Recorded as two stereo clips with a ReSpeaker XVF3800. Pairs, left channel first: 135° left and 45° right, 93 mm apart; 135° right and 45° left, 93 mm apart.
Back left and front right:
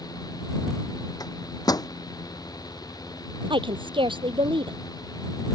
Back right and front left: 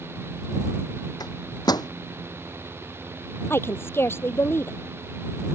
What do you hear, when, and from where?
1.2 s a microwave: straight behind
3.5 s a woman speaking: 70° right